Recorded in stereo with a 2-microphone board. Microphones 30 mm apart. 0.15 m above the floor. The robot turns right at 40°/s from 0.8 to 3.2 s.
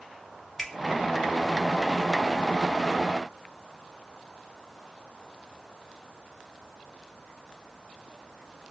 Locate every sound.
0.6 s a finger snap: 10° left (ahead or behind), 2.5 m